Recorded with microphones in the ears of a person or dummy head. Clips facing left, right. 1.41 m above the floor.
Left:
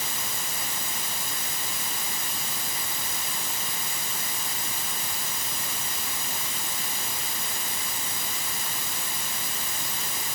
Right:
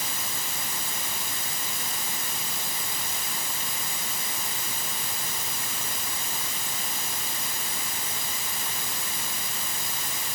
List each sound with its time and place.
Only background noise.